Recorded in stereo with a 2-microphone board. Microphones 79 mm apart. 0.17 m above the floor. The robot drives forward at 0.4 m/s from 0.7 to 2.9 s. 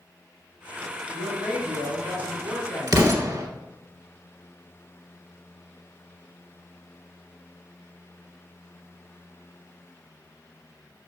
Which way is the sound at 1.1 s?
35° right (ahead or behind).